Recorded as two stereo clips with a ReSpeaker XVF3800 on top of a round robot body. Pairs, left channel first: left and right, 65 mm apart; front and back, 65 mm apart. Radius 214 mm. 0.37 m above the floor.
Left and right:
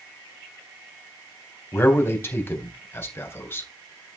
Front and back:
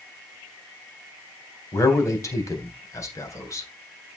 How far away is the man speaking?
About 3.5 m.